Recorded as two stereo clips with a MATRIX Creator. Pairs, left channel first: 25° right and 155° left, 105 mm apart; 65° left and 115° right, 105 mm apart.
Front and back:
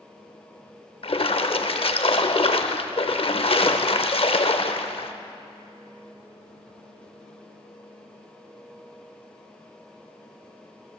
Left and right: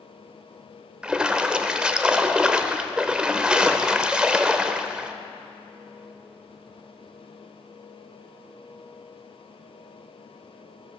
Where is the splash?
35° right, 0.6 m.